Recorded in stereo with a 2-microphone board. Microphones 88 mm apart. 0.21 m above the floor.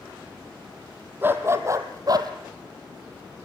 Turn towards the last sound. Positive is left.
turn(degrees=-55)  # may be behind; listen again after turning